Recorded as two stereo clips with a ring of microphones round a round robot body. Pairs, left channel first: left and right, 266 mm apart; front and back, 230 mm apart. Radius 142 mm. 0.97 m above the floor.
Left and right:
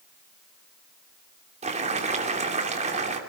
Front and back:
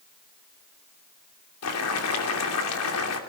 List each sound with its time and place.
1.6 s boiling: 25° right, 3 m